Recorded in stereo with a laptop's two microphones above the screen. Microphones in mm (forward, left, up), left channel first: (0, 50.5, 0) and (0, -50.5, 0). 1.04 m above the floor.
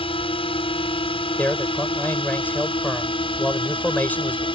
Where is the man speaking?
20° left (ahead or behind).